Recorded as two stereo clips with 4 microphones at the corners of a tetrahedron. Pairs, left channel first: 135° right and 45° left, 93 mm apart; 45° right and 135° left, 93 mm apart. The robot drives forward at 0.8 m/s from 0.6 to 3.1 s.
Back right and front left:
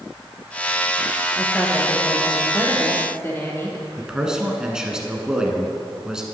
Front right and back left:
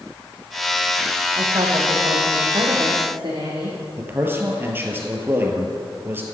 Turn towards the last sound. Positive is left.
turn(degrees=120)